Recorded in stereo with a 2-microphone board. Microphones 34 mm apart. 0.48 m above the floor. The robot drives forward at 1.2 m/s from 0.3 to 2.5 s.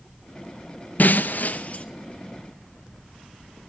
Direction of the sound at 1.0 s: 55° left (ahead or behind).